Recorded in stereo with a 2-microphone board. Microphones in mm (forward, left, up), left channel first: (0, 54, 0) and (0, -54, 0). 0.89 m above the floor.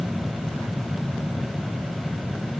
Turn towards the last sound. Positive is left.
No sound to turn to.